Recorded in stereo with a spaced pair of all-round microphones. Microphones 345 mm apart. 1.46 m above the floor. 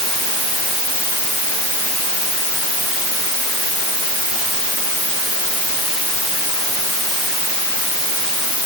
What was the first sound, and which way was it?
Only background noise.